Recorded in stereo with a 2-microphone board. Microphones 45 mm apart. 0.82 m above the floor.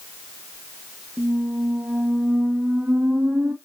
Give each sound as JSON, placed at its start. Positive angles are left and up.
{"t": 1.2, "sound": "a squeak", "side_deg": -55, "distance_m": 0.8}